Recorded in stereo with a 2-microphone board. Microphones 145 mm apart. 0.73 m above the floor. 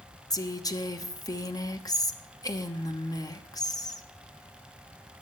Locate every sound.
0.3 s a woman speaking: 25° left (ahead or behind), 0.9 m